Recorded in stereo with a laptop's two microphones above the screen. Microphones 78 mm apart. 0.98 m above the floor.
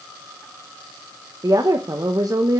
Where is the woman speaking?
45° right (ahead or behind), 0.8 m.